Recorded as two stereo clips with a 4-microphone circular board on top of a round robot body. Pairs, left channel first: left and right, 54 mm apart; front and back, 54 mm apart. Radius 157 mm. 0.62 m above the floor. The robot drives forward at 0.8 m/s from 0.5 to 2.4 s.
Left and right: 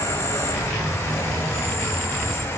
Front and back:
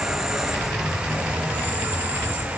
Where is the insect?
100° left, 2.5 m; by 2.6 s 130° left, 3 m.